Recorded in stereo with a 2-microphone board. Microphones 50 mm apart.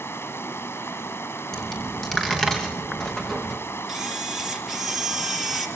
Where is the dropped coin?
10° left (ahead or behind), 6.5 m.